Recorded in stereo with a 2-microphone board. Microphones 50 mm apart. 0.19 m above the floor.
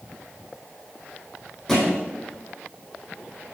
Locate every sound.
1.7 s a thud: 5° left (ahead or behind), 3.5 m